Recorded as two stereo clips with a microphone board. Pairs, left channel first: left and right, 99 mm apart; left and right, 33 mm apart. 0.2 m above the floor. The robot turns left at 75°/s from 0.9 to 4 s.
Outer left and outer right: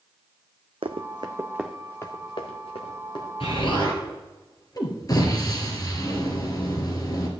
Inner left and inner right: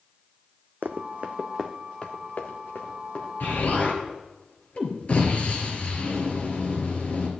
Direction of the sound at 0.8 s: 80° right.